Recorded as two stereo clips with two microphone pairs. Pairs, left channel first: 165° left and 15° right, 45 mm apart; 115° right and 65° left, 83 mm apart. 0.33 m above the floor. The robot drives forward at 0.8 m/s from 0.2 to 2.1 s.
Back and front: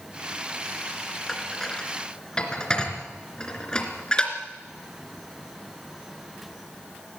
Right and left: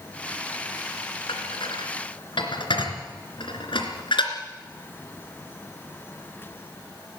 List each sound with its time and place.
1.3 s dishes clattering: 110° right, 2.5 m; by 4.3 s 125° right, 3 m